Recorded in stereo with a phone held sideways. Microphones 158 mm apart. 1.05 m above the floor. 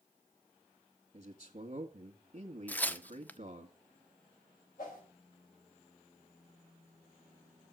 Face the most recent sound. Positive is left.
turn(degrees=70)  # may be behind; listen again after turning